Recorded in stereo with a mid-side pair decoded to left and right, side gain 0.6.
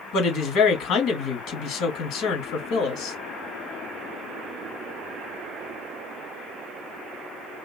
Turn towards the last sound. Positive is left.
turn(degrees=70)